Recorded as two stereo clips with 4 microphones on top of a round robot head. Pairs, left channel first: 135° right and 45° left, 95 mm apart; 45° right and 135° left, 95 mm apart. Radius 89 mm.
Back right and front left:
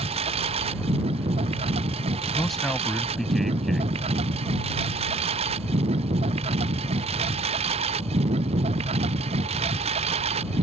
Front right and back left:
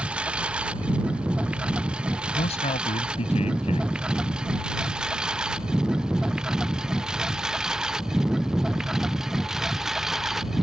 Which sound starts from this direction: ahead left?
A lawn mower, at 0.0 s.